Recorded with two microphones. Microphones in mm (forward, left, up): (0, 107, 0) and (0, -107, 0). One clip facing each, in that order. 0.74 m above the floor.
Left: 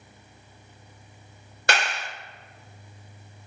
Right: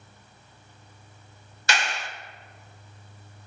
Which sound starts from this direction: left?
A clap, at 1.7 s.